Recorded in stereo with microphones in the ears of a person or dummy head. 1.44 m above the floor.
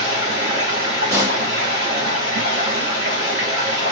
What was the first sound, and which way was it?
Running water, 40° right (ahead or behind).